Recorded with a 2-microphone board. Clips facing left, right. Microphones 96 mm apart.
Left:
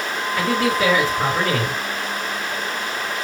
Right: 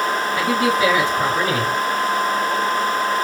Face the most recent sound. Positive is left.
turn(degrees=-10)  # may be behind; listen again after turning